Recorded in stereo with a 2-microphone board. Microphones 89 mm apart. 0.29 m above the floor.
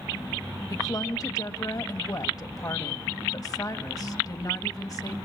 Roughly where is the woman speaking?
Left.